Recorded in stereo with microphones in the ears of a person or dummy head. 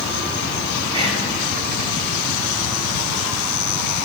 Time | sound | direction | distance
0.9 | whispering | 25° right (ahead or behind) | 2.5 m